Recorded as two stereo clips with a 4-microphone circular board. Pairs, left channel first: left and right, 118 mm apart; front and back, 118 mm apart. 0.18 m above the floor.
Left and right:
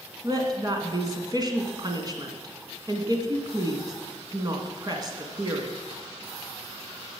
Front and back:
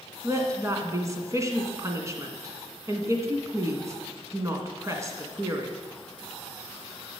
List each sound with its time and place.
0.2 s a woman speaking: 130° right, 1.7 m